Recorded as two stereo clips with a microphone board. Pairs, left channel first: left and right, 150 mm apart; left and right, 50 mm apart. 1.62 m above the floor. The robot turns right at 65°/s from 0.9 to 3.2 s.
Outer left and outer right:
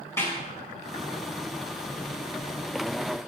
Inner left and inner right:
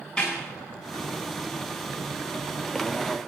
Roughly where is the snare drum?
Centre.